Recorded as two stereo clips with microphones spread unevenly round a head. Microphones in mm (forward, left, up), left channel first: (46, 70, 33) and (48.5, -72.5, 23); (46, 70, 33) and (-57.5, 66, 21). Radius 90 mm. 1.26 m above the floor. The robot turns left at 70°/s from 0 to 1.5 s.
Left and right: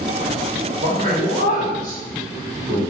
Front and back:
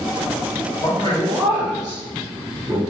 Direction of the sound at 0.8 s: 45° right.